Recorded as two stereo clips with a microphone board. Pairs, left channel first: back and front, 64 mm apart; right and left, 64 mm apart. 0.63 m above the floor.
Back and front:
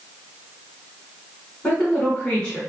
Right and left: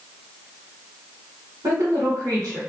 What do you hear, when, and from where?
1.6 s a woman speaking: 110° left, 1.8 m